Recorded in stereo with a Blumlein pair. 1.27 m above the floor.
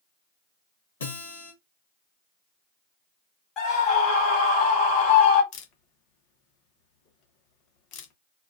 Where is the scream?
30° left, 2.5 m.